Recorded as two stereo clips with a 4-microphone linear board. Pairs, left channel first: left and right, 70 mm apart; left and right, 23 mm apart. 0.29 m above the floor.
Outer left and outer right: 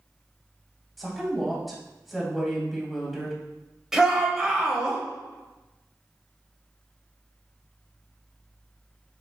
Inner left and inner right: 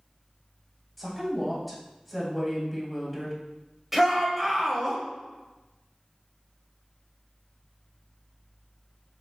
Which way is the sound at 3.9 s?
5° right (ahead or behind).